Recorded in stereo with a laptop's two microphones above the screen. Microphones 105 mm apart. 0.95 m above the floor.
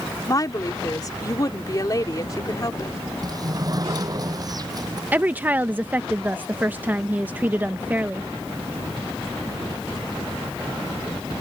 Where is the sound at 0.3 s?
35° left (ahead or behind).